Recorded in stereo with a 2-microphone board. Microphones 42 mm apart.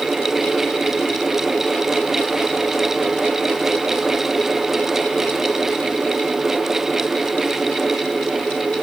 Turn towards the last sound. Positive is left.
No sound to turn to.